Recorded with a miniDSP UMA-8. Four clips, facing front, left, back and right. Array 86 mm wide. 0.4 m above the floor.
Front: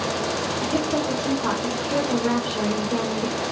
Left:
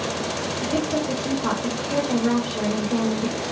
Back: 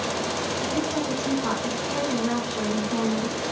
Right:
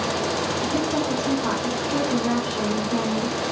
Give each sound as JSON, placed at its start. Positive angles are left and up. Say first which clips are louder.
{"t": 0.6, "sound": "a woman speaking", "louder": "left 2 dB, front 4 dB", "azimuth_deg": 25, "distance_m": 1.2}